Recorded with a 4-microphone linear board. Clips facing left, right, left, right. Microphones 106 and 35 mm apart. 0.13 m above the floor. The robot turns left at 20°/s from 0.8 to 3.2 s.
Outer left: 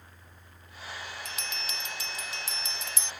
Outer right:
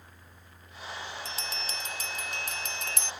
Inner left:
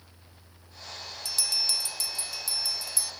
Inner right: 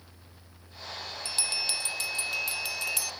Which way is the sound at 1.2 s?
35° right.